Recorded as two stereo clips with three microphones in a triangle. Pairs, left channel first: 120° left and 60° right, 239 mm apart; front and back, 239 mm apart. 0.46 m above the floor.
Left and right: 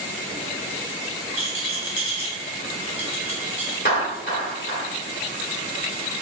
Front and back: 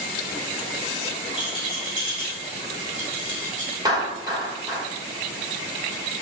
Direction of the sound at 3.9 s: 110° left.